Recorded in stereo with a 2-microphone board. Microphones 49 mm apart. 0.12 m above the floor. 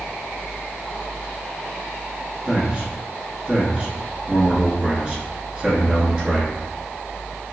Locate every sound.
2.5 s a man speaking: 20° right (ahead or behind), 1.6 m